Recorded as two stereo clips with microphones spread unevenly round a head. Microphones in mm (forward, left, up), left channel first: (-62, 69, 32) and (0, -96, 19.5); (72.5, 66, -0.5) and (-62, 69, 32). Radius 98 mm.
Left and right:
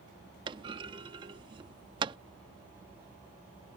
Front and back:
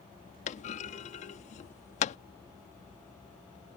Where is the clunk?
15° right.